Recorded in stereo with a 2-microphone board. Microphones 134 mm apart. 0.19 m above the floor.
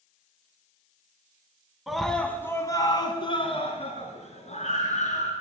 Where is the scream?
Centre (ahead or behind), 1.6 m; by 5.3 s 65° left (ahead or behind), 3.5 m.